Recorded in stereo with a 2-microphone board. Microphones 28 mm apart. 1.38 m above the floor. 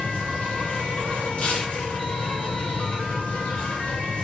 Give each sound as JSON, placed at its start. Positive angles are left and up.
{"t": 0.0, "sound": "an insect", "side_deg": 70, "distance_m": 3.5}
{"t": 1.4, "sound": "tearing paper", "side_deg": 60, "distance_m": 3.0}